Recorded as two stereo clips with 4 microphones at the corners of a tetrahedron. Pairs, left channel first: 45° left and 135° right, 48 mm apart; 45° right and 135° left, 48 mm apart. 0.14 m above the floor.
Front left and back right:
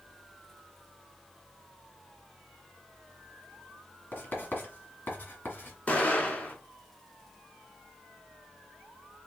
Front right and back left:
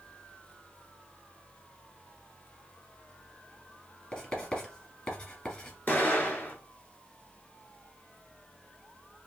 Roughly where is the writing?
Ahead.